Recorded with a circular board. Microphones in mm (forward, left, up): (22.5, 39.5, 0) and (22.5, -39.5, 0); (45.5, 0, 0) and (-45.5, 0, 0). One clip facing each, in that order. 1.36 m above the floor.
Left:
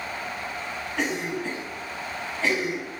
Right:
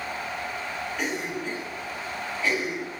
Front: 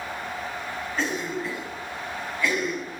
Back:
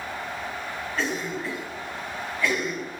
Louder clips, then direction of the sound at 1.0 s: Left 5 dB, front 1 dB; 75° left.